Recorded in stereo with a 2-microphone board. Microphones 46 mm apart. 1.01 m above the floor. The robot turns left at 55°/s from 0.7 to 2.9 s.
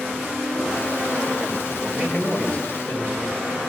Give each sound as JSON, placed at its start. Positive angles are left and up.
{"t": 1.8, "sound": "a man speaking", "azimuth_deg": -165, "distance_m": 4.0}